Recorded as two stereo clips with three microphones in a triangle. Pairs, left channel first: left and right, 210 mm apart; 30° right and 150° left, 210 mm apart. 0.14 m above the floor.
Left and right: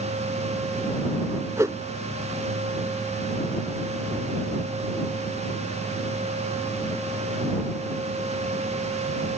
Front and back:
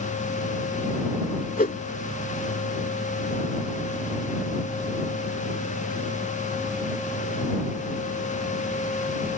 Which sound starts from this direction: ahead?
A whoosh, at 1.6 s.